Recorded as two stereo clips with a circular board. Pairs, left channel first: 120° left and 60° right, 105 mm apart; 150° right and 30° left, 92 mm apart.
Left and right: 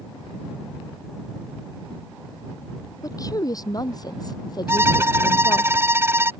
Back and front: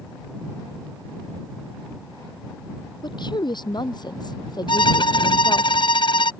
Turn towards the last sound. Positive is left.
turn(degrees=-125)